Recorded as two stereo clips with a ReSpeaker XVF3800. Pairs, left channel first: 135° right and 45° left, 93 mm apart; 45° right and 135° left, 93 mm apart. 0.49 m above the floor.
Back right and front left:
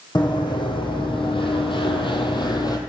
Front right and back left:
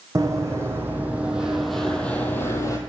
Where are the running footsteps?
170° right, 1.6 m; by 2.8 s 95° right, 1.1 m.